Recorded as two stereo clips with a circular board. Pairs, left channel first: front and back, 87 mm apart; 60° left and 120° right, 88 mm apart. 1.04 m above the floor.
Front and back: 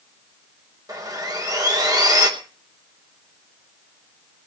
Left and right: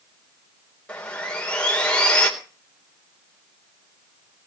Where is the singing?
I don't hear singing.